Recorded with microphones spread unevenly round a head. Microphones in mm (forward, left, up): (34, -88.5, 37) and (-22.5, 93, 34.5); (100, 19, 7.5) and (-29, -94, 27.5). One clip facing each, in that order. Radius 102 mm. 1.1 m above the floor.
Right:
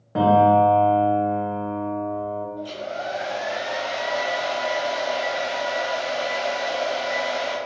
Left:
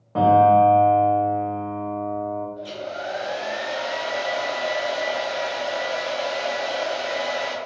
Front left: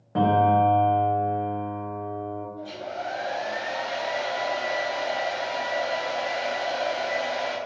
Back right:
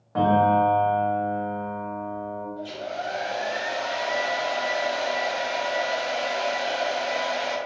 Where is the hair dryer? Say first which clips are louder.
Right 1 dB, back right 2 dB; 165° left, 0.9 m.